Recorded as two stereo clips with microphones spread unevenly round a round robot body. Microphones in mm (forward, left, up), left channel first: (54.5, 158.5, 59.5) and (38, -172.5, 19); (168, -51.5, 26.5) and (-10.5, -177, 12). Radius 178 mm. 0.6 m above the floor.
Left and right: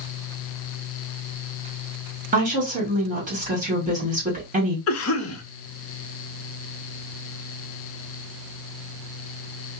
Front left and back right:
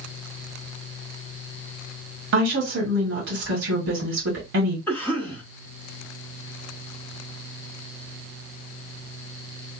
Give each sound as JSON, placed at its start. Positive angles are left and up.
{"t": 2.3, "sound": "a woman speaking", "azimuth_deg": -155, "distance_m": 1.7}
{"t": 4.9, "sound": "a cough", "azimuth_deg": 120, "distance_m": 0.8}